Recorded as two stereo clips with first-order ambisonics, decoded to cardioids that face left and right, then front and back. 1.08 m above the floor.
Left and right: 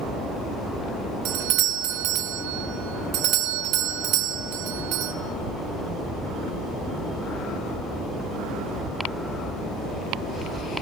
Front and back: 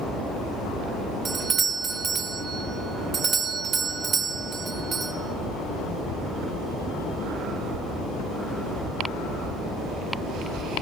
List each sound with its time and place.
1.2 s a doorbell: 115° right, 1.3 m